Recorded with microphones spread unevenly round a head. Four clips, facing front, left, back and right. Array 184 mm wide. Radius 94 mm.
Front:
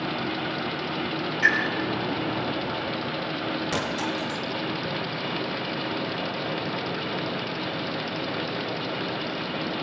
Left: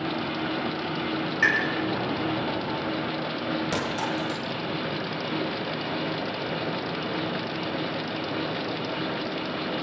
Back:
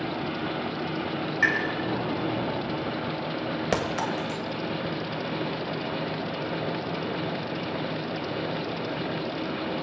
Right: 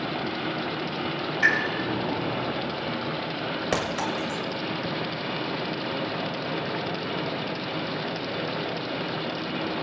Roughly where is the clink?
Behind.